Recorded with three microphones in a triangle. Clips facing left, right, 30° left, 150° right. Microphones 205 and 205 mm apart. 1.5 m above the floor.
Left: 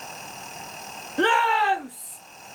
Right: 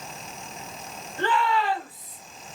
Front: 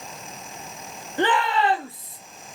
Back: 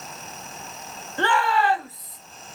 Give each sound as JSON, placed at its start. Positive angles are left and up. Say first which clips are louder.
{"t": 1.2, "sound": "a shout", "louder": "left 2 dB, front 1 dB", "azimuth_deg": 100, "distance_m": 2.0}